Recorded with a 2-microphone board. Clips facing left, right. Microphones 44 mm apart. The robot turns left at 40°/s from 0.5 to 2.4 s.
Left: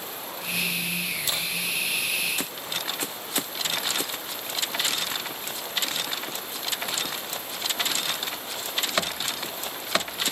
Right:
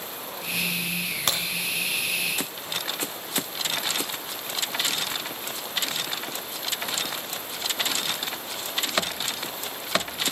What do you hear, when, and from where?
1.3 s a crack: 60° right (ahead or behind), 2 m; by 1.4 s 55° right (ahead or behind), 2 m